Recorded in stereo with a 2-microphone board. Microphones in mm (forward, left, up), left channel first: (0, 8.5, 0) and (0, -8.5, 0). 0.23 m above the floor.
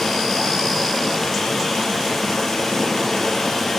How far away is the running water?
About 2.5 m.